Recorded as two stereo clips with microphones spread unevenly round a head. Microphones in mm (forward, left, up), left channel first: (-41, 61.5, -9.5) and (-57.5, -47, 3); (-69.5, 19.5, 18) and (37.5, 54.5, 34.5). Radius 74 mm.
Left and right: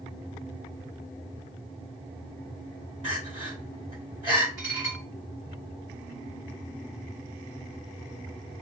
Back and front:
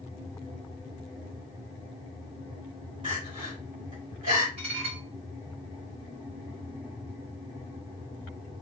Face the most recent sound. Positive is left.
turn(degrees=-35)